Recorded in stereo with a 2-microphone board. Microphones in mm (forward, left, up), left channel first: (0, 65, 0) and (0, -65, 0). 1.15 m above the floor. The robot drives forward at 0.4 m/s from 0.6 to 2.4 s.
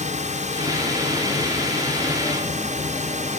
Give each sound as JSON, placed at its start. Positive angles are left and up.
{"t": 0.0, "sound": "a drone", "side_deg": -70}